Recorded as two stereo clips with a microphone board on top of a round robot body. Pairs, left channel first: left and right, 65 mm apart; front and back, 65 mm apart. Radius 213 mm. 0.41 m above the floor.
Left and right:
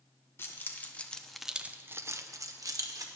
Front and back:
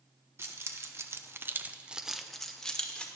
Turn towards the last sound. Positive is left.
turn(degrees=-75)